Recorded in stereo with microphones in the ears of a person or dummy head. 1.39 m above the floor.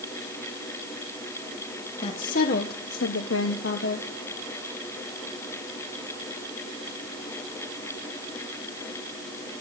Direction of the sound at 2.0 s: 40° left (ahead or behind).